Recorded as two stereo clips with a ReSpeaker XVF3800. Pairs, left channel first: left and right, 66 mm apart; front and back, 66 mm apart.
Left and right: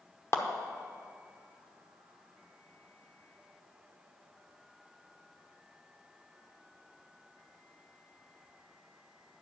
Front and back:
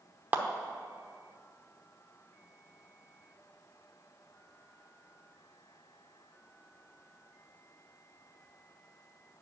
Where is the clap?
125° left, 0.8 m.